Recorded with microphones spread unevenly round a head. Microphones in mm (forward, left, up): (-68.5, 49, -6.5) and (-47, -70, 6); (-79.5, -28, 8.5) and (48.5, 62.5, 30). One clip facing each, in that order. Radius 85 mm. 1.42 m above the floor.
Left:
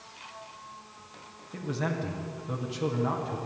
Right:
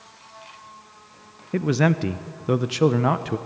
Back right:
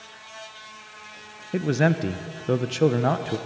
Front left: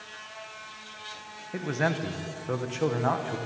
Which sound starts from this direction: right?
A man speaking, at 1.5 s.